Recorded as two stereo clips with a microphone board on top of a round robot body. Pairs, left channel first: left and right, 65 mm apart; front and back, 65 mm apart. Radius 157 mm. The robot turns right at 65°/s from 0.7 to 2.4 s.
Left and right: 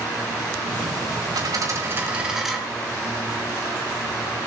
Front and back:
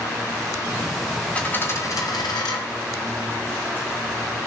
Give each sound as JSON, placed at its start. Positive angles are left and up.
{"t": 1.3, "sound": "a dropped coin", "azimuth_deg": -70, "distance_m": 3.0}